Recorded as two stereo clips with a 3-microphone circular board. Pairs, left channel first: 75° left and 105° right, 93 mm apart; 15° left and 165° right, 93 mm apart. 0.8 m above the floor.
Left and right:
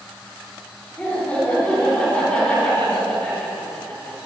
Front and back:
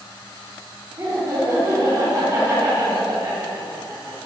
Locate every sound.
1.0 s laughter: 150° left, 3 m